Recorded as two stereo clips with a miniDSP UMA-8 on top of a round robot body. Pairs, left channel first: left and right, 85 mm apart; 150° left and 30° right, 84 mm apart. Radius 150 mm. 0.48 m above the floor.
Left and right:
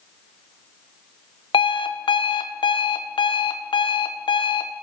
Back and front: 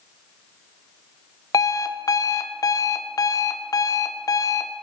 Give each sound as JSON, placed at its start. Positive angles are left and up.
{"t": 1.5, "sound": "an alarm clock", "azimuth_deg": 105, "distance_m": 0.6}